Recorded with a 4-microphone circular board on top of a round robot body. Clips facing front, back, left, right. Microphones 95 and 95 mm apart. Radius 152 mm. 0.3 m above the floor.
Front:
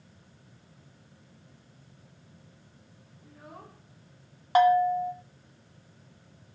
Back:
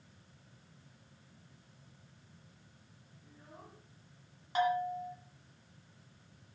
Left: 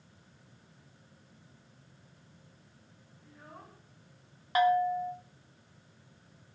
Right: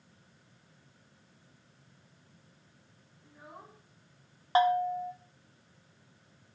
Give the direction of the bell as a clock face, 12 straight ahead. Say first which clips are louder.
Front 11 dB, even; 1 o'clock.